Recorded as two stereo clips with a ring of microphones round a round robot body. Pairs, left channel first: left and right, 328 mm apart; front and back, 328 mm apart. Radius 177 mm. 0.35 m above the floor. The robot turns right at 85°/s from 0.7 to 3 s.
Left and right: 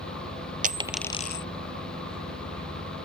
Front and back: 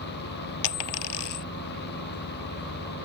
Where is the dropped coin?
25° right; by 1.4 s 40° left.